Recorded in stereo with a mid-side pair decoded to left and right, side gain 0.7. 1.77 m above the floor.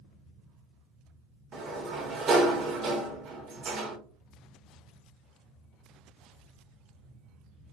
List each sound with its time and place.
0.0 s a fan: 40° right, 1.2 m
1.5 s a sliding door: 40° right, 1.0 m